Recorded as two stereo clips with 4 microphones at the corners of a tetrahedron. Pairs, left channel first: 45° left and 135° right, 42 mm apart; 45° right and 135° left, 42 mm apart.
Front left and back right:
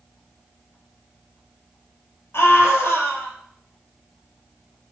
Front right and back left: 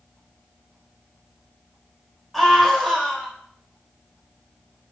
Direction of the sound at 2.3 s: 45° left.